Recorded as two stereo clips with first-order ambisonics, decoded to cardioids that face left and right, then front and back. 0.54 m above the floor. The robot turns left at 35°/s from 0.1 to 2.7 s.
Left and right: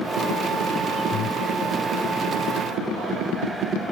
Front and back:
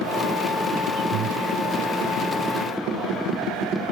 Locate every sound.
1.1 s breathing: 140° left; by 1.4 s 130° left